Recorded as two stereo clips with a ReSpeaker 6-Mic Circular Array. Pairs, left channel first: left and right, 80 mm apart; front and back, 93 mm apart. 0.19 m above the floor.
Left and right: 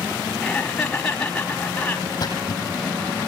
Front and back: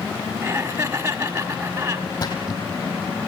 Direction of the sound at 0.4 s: 160° left.